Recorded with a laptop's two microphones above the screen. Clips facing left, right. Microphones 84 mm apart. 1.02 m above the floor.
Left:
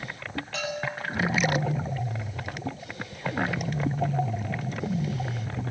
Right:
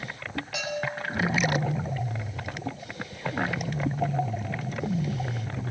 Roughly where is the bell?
Centre.